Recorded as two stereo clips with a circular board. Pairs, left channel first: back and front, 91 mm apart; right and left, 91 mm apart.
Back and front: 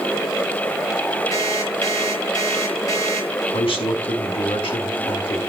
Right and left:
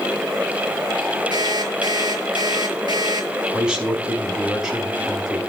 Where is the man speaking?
170° left, 5 m.